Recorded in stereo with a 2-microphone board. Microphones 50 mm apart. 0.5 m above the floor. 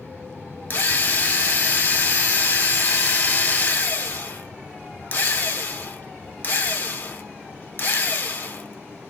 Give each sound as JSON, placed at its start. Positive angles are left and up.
{"t": 0.7, "sound": "a drill", "side_deg": 40, "distance_m": 0.8}